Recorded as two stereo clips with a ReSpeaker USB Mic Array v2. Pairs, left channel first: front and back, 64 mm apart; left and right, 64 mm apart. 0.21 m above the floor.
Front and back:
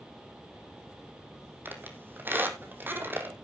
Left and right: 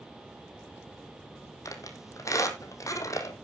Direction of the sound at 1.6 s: 120° left.